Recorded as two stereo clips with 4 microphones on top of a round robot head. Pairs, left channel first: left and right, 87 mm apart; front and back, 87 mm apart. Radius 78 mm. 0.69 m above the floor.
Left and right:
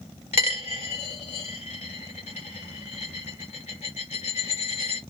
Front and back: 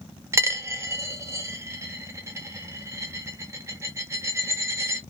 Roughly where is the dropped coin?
Behind left.